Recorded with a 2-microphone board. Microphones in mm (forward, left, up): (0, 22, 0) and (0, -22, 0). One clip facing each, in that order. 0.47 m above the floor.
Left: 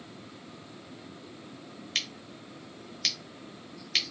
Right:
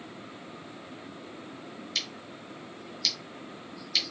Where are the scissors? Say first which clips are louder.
Left 2 dB; 45° left (ahead or behind), 0.6 m.